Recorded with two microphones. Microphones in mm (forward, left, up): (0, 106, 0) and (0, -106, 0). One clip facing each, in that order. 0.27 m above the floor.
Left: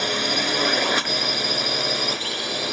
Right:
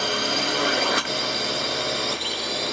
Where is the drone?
5° left (ahead or behind); by 2.7 s centre (ahead or behind).